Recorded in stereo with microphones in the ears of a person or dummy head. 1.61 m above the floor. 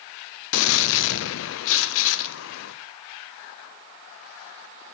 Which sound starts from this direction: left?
A gunshot, at 0.5 s.